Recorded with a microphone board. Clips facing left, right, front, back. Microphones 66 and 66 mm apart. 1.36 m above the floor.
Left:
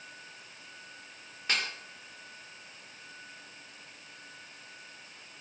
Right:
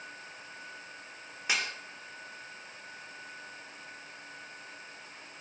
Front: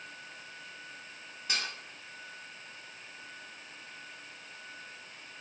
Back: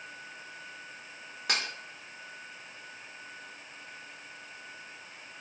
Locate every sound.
1.5 s dishes clattering: 170° right, 2 m